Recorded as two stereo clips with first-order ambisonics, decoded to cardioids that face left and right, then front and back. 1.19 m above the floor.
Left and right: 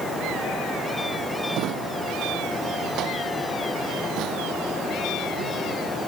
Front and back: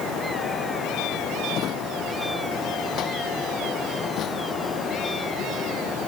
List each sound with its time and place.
1.5 s a drawer: 50° right